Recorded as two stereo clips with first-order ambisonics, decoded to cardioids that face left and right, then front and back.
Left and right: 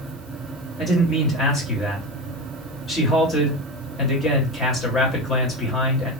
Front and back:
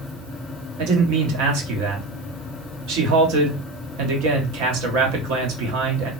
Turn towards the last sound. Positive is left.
turn(degrees=160)